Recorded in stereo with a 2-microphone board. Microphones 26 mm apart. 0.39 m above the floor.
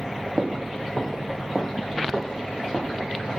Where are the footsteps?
35° right (ahead or behind), 0.6 m; by 3.4 s 25° left (ahead or behind), 1.8 m.